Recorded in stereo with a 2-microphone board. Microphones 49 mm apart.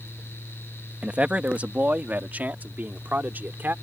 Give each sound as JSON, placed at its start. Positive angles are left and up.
{"t": 1.0, "sound": "a man speaking", "side_deg": -25}